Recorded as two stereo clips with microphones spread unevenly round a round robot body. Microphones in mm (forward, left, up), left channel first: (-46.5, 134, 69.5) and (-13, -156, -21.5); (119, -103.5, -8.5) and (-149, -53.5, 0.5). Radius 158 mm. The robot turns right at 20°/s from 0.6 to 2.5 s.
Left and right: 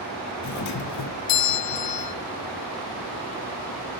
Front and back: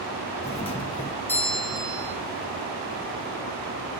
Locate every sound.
0.4 s a doorbell: 55° left, 1.3 m; by 2.1 s 90° left, 1.3 m